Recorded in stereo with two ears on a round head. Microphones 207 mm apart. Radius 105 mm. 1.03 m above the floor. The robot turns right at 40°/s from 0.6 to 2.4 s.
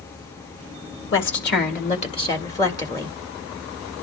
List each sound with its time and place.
1.1 s a woman speaking: 110° left, 1.5 m; by 3.1 s 160° left, 1.5 m